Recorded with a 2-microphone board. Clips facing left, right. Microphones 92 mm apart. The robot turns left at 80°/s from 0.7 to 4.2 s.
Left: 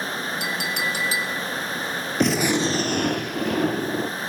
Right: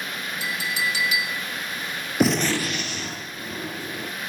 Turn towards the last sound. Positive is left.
turn(degrees=25)